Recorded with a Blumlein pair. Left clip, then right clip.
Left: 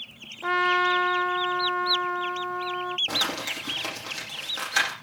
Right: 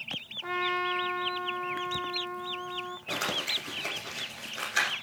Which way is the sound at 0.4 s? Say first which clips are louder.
Left 8 dB; 25° left.